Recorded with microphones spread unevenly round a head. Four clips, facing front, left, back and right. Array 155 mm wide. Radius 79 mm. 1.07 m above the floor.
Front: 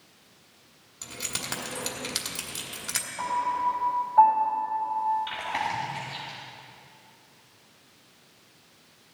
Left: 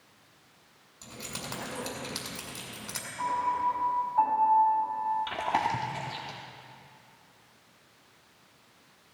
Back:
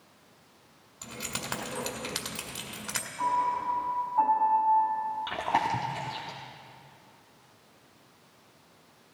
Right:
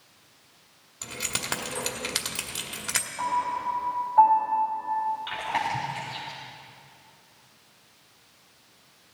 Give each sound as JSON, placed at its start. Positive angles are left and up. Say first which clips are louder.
{"t": 1.0, "sound": "keys jangling", "louder": "right 5 dB, back 1 dB", "azimuth_deg": -75, "distance_m": 2.0}
{"t": 3.2, "sound": "a piano", "louder": "right 1 dB, front 1 dB", "azimuth_deg": -30, "distance_m": 5.5}
{"t": 5.3, "sound": "chewing", "louder": "even, back 3 dB", "azimuth_deg": 150, "distance_m": 1.2}